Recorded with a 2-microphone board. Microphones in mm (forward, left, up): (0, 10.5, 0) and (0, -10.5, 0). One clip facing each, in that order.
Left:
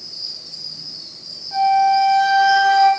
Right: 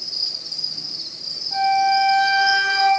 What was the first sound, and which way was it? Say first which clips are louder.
An insect: right 5 dB; 70° right (ahead or behind).